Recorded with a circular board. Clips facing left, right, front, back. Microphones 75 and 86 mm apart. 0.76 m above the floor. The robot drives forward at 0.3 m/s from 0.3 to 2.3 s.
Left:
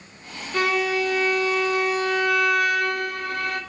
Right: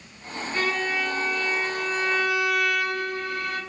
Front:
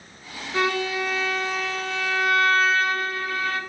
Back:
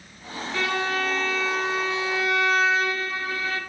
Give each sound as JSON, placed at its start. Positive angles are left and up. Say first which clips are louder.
{"t": 0.5, "sound": "a violin", "louder": "left 5 dB, front 2 dB", "azimuth_deg": 70, "distance_m": 0.7}